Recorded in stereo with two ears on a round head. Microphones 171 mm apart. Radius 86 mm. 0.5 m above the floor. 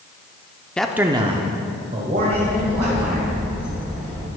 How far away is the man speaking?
About 0.7 m.